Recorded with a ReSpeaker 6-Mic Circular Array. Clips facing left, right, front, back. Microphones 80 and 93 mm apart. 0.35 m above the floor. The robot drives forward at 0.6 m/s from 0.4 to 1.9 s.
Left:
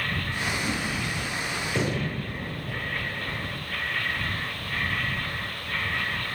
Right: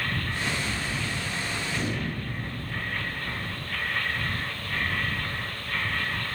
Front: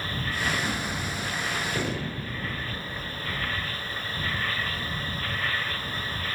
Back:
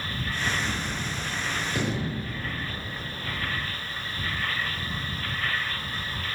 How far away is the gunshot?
About 2.5 m.